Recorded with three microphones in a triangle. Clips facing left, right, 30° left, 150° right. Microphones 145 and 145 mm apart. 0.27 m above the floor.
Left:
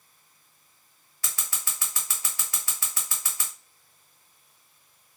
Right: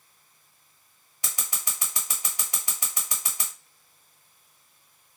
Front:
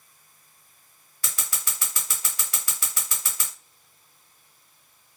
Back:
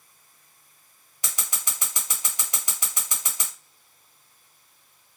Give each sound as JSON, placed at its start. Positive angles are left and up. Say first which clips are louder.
{"t": 1.2, "sound": "scissors", "louder": "right 1 dB, back 1 dB", "azimuth_deg": -120, "distance_m": 1.3}